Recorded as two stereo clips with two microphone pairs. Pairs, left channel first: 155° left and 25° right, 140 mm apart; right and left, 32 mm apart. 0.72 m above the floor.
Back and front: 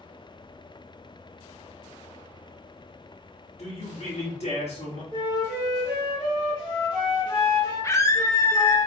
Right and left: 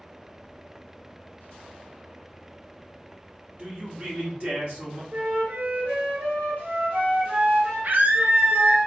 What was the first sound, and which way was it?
A man speaking, 120° left.